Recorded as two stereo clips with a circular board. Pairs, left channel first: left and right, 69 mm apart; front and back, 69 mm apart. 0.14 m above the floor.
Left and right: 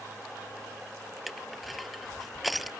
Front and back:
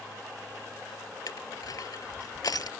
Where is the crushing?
Straight ahead.